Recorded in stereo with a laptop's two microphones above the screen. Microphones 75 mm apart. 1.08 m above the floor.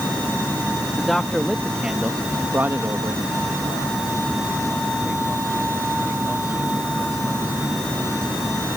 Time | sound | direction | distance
1.0 | a man speaking | 10° left (ahead or behind) | ?